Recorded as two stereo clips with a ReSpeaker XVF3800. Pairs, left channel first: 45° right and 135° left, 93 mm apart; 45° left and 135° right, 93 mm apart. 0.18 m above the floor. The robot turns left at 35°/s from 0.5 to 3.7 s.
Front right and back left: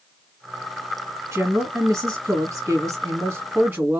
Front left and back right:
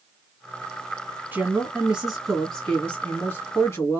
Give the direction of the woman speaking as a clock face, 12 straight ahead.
6 o'clock.